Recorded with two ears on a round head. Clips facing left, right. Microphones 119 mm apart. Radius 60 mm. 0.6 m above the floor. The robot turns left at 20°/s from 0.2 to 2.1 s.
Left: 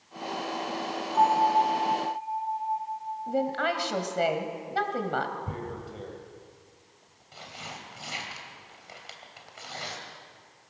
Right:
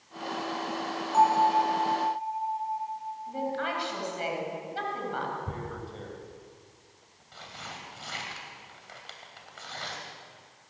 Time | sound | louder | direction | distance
1.1 | a bell | even | 65° right (ahead or behind) | 5.5 m
3.3 | a woman speaking | left 5 dB | 70° left (ahead or behind) | 3 m
5.5 | tearing paper | left 1 dB | 15° left (ahead or behind) | 3 m